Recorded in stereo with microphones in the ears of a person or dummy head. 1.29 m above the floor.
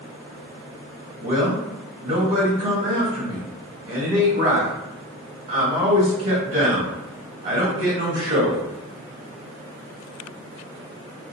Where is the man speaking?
30° right (ahead or behind), 1.4 m.